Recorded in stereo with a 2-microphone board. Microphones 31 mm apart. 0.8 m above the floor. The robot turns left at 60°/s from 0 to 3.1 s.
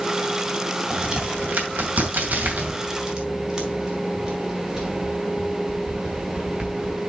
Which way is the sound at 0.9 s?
30° right (ahead or behind).